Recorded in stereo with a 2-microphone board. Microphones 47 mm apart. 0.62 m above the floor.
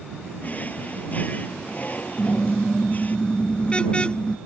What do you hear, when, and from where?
0.4 s a drawer: 35° left (ahead or behind)
2.2 s a car horn: 25° left (ahead or behind)